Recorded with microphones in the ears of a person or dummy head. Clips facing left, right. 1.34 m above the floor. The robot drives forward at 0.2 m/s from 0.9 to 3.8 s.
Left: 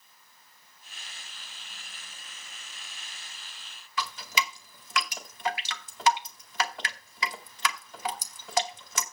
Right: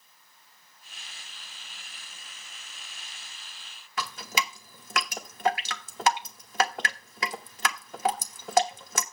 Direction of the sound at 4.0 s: 45° right (ahead or behind).